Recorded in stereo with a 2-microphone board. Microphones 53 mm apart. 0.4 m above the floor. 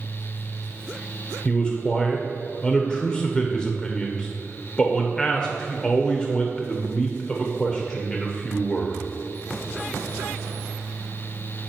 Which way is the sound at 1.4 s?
20° left (ahead or behind).